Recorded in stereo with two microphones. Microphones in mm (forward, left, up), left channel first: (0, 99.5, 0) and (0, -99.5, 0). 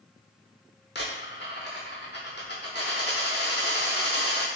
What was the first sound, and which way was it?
A dropped coin, 55° left (ahead or behind).